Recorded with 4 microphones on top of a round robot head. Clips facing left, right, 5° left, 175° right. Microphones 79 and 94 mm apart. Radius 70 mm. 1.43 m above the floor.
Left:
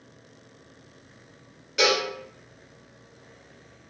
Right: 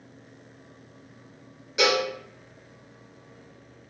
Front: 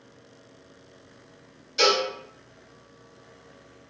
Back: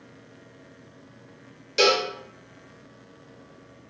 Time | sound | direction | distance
1.8 | a cowbell | 175° right | 0.8 m